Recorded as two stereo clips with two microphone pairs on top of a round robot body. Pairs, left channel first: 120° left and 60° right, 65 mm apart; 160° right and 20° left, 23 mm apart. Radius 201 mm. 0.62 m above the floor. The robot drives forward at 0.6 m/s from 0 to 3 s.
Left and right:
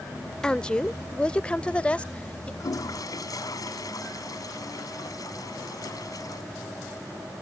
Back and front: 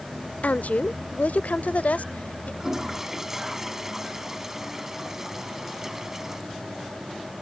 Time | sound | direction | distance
0.4 | a woman speaking | 165° right | ?
2.6 | a toilet flushing | 90° left | ?